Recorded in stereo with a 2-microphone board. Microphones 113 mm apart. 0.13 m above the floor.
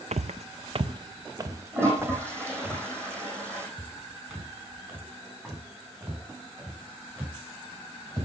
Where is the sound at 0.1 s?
80° right, 0.6 m; by 2.7 s 20° right (ahead or behind), 2.5 m.